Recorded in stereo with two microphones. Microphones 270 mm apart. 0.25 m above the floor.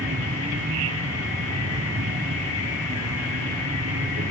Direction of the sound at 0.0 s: 60° right (ahead or behind).